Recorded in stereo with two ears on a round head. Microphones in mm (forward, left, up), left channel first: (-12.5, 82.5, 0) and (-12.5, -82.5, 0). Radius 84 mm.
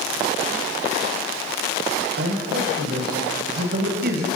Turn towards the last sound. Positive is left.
turn(degrees=-60)  # may be behind; listen again after turning